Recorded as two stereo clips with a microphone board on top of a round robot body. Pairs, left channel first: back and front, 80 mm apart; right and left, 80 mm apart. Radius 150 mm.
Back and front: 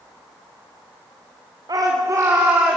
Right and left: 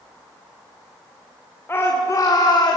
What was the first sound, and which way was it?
A shout, 30° right.